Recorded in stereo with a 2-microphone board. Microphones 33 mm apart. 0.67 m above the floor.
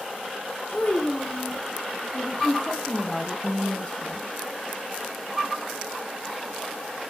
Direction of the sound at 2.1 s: 30° left (ahead or behind).